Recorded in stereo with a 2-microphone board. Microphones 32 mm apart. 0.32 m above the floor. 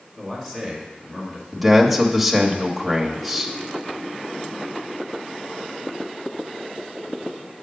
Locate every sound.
0.2 s a man speaking: 10° left (ahead or behind), 3 m
1.5 s a man speaking: centre (ahead or behind), 1.1 m